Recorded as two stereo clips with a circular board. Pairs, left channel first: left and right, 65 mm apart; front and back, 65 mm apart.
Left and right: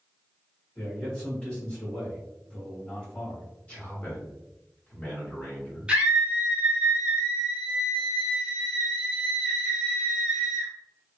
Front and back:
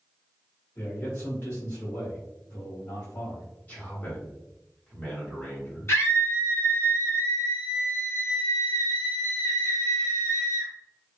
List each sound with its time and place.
0.8 s a man speaking: 20° left, 1.6 m
3.7 s a man speaking: 45° left, 1.6 m
5.9 s a scream: 25° right, 1.2 m